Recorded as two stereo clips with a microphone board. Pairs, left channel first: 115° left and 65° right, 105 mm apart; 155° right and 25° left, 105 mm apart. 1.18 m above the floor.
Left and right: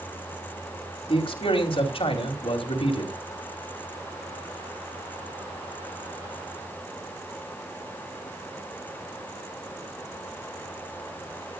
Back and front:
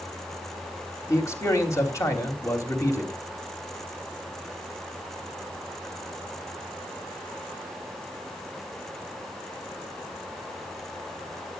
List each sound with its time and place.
1.1 s a man speaking: 140° left, 3 m